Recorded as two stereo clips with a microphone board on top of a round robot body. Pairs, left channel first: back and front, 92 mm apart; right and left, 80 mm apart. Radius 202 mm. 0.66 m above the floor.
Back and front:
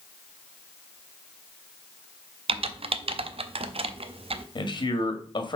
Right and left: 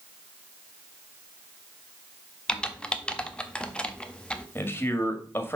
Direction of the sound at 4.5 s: 150° right.